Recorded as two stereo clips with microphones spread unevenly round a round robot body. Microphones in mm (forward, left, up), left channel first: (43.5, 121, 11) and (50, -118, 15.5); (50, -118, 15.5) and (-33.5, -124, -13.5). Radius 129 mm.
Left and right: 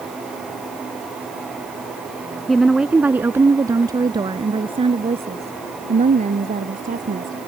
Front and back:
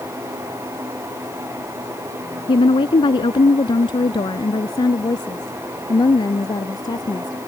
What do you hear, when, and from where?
2.5 s a woman speaking: straight ahead; by 7.4 s 35° right